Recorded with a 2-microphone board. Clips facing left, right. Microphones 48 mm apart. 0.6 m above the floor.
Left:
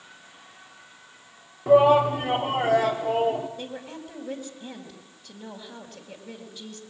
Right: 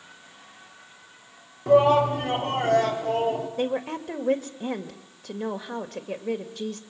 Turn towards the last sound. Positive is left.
turn(degrees=-70)  # may be behind; listen again after turning